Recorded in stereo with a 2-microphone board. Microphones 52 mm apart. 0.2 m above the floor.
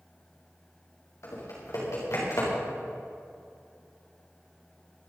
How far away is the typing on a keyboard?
About 6.5 m.